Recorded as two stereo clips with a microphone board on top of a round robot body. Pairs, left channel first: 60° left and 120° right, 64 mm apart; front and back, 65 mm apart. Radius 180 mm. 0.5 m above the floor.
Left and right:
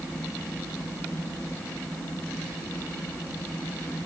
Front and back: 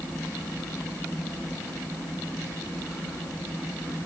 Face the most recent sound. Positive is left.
No sound to turn to.